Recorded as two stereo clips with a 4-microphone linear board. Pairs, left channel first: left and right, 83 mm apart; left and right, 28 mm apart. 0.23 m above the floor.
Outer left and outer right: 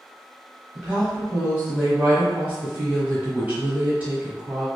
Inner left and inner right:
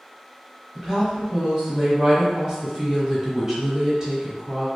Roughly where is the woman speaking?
Centre.